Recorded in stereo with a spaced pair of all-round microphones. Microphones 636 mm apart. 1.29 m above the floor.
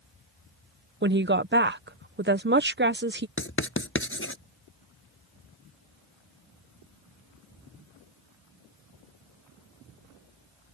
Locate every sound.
1.0 s a woman speaking: 20° right (ahead or behind)
3.4 s writing: 20° left (ahead or behind)